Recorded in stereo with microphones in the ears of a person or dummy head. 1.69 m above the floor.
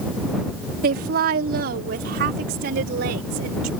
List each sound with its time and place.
0.8 s a woman speaking: 60° right (ahead or behind); by 3.7 s 65° right (ahead or behind)